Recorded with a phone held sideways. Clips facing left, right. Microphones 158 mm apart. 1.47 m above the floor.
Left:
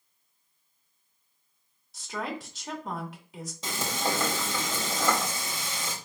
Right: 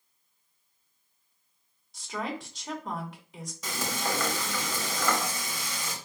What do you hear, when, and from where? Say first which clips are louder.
1.9 s a woman speaking: even; 5° left (ahead or behind), 2.5 m
3.6 s frying: left 2 dB; 25° left (ahead or behind), 2.5 m